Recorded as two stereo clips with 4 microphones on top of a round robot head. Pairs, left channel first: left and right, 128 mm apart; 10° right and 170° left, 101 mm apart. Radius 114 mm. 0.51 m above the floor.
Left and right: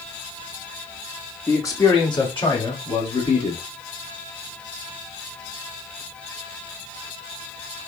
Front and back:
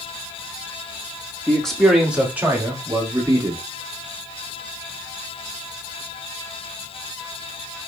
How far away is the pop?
No pop in this recording.